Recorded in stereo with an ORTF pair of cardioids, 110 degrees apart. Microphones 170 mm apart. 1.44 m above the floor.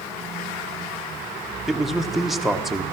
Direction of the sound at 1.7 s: Straight ahead.